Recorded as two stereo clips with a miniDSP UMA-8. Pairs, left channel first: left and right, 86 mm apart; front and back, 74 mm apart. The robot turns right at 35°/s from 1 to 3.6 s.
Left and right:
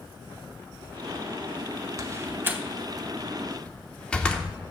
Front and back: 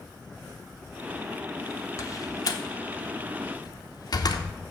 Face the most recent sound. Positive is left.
turn(degrees=15)